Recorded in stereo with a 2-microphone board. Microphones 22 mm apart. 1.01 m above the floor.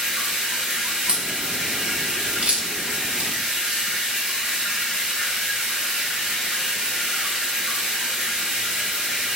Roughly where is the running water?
Right.